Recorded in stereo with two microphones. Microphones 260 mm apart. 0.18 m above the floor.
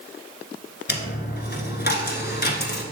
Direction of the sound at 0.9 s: 40° left (ahead or behind).